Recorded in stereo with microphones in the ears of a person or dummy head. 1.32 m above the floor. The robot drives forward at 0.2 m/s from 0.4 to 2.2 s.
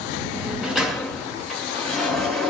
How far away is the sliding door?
About 0.5 m.